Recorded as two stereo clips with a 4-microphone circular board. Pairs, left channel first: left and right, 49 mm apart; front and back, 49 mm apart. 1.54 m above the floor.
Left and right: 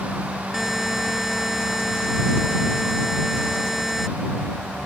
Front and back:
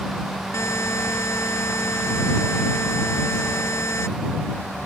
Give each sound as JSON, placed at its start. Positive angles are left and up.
{"t": 0.5, "sound": "a buzzer", "azimuth_deg": -5}